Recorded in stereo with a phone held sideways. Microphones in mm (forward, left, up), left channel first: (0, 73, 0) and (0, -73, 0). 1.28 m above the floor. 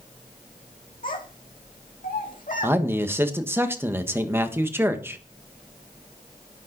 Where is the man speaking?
15° right (ahead or behind), 1.4 m.